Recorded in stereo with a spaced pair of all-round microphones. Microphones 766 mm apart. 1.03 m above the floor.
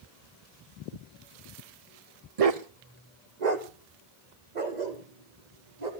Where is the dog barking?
50° right (ahead or behind), 0.8 m; by 5.9 s 65° right (ahead or behind), 3 m.